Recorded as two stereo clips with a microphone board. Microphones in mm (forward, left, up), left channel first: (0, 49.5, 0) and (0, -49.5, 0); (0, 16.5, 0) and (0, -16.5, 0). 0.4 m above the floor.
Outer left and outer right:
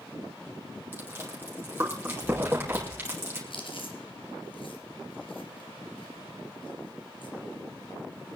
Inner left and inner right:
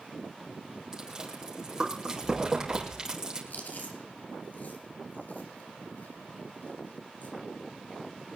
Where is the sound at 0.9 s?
20° right (ahead or behind), 4 m.